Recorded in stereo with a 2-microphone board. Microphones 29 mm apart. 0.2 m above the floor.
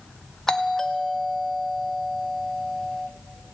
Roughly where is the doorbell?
Centre.